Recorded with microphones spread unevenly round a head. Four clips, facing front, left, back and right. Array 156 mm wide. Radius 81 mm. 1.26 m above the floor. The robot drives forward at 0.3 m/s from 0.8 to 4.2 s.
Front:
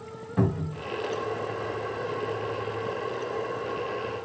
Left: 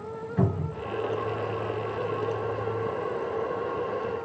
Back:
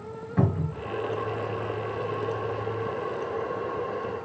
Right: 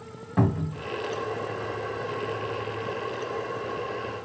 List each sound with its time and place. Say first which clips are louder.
0.4 s a cupboard door: right 3 dB, even; 110° right, 2 m